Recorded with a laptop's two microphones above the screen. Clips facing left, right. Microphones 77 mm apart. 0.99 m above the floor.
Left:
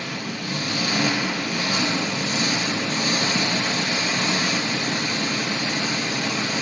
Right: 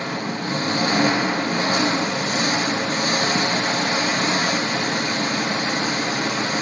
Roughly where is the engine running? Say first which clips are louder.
Right 4 dB; right.